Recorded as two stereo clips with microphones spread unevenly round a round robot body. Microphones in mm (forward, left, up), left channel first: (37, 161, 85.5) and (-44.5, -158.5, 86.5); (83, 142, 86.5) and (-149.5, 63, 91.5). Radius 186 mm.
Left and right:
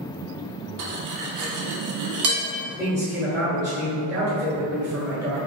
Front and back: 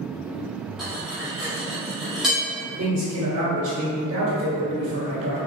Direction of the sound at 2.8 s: 175° left.